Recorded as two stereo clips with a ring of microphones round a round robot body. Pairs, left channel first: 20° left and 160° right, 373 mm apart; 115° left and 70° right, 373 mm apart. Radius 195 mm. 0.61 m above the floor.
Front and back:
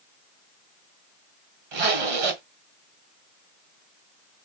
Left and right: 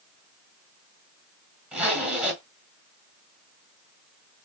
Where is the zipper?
155° right, 1.5 m.